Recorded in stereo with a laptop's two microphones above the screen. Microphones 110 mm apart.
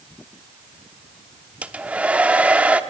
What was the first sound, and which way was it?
A hair dryer, 10° right (ahead or behind).